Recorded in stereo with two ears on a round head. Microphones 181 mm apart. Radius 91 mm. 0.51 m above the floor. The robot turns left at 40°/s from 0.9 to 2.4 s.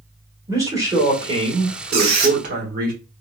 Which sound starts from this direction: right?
A squeak, at 1.9 s.